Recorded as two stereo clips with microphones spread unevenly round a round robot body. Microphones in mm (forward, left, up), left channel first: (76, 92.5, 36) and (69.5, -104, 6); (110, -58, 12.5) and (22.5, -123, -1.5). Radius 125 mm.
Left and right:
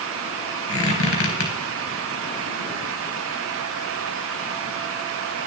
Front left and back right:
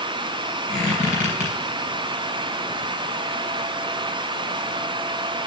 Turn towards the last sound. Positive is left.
turn(degrees=75)